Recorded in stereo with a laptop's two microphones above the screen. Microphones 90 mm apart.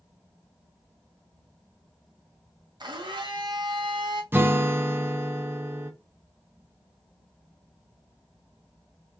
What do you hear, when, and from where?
2.8 s a blender: 55° right (ahead or behind), 0.7 m
4.3 s a guitar: 25° right (ahead or behind), 0.7 m